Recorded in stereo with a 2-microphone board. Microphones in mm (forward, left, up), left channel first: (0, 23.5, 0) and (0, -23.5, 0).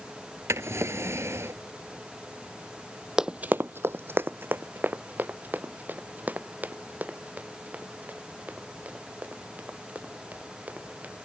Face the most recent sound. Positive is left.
turn(degrees=-35)  # may be behind; listen again after turning